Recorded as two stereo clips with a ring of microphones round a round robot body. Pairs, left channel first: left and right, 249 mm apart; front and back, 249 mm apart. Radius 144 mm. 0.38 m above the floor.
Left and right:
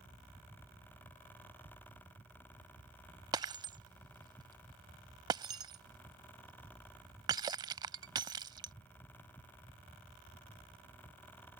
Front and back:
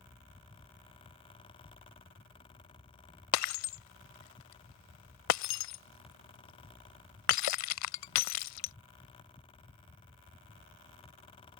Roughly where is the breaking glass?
Ahead.